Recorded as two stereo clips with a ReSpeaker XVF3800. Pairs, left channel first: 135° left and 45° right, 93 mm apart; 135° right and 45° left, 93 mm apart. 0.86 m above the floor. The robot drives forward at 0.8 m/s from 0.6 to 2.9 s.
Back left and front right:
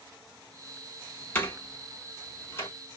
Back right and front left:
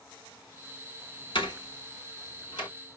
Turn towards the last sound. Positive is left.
turn(degrees=-170)